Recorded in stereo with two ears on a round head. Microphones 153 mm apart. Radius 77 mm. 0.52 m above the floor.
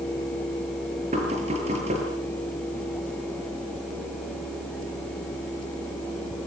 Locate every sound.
1.1 s knocking: 40° right (ahead or behind), 8 m